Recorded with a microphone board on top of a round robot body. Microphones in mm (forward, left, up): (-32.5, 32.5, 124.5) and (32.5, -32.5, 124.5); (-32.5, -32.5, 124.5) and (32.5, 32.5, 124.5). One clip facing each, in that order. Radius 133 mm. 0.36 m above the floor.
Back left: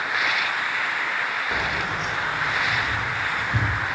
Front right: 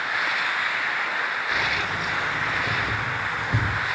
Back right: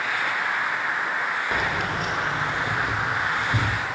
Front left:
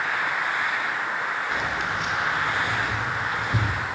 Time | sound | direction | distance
1.5 | keys jangling | 160° right | 0.8 m